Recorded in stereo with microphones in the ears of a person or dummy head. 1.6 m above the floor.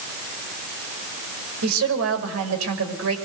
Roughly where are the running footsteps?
I don't hear running footsteps.